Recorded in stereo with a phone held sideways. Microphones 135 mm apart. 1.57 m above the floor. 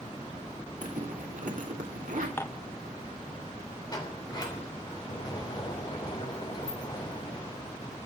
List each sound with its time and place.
0.8 s a zipper: 75° right (ahead or behind), 3 m
2.4 s dishes clattering: 15° left (ahead or behind), 0.8 m
3.9 s a sliding door: 30° left (ahead or behind), 3 m